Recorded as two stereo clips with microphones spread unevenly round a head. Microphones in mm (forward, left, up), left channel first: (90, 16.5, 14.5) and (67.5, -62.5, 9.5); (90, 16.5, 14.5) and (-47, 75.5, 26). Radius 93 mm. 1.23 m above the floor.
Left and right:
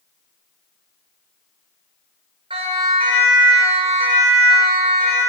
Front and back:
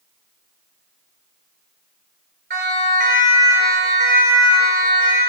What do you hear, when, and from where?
2.5 s a siren: 155° right, 6 m; by 5.2 s 140° right, 7 m